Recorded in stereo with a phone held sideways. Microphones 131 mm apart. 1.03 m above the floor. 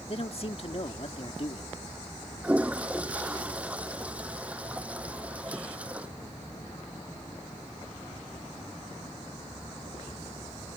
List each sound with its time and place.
0.1 s a man speaking: 50° left (ahead or behind)
2.4 s a toilet flushing: 10° right (ahead or behind)